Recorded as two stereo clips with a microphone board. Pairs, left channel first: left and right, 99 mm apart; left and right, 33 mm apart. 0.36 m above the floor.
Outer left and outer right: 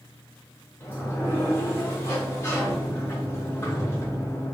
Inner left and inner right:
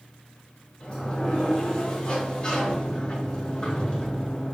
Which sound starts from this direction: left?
A sliding door, at 0.8 s.